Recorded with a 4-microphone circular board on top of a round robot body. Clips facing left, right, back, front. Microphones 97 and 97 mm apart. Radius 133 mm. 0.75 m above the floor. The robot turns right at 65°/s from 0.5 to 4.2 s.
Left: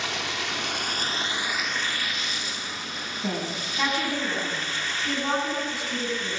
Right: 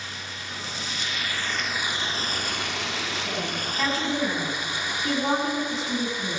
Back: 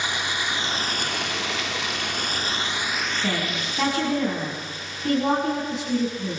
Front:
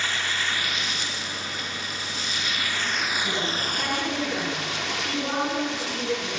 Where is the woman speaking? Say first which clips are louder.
Even, back 1 dB; 140° left, 9 m; by 6.4 s 160° right, 9 m.